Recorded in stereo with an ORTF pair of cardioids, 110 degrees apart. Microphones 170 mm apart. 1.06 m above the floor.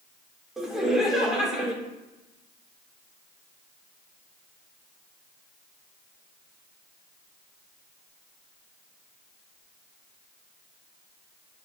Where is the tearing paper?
No tearing paper in this recording.